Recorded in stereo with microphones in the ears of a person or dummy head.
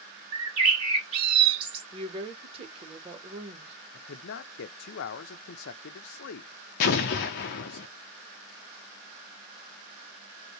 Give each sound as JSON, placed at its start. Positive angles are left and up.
{"t": 0.3, "sound": "a bird", "side_deg": -30, "distance_m": 1.4}
{"t": 1.9, "sound": "a woman speaking", "side_deg": -30, "distance_m": 1.3}
{"t": 3.9, "sound": "a man speaking", "side_deg": 55, "distance_m": 0.5}
{"t": 6.8, "sound": "an explosion", "side_deg": 40, "distance_m": 0.5}